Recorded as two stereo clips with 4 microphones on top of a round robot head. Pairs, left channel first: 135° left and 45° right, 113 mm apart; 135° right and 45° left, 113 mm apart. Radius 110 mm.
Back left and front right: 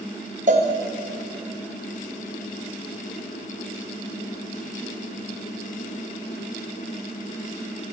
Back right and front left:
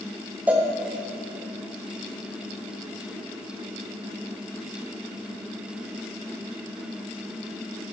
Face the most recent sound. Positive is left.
turn(degrees=-30)